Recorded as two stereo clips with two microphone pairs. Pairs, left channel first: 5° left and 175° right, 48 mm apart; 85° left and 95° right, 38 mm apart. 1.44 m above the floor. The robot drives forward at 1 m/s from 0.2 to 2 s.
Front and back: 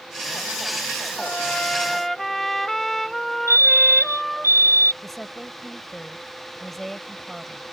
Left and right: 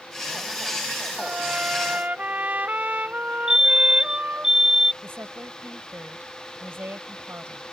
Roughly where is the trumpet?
Ahead right.